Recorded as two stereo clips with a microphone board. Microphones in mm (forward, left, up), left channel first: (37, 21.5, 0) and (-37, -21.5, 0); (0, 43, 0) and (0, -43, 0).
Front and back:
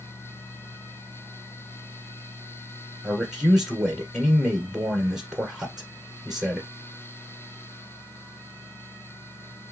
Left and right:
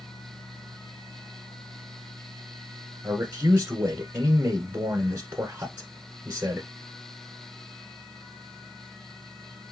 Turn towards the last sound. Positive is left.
turn(degrees=-70)